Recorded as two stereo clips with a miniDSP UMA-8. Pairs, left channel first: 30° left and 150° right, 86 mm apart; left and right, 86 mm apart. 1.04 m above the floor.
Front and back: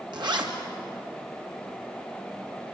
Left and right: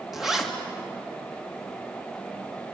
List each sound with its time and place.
0.1 s a zipper: 175° right, 2 m